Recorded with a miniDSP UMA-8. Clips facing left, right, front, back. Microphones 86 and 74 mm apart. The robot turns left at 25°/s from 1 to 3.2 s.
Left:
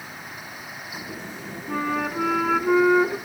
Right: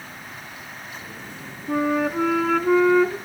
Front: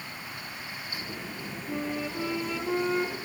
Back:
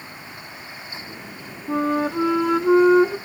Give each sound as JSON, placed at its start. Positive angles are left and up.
{"t": 1.7, "sound": "a flute", "azimuth_deg": -165, "distance_m": 0.6}